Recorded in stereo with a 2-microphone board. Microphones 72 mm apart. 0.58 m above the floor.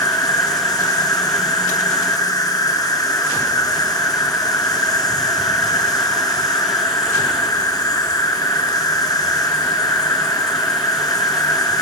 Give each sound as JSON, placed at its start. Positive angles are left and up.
{"t": 0.0, "sound": "an insect", "side_deg": 60, "distance_m": 1.6}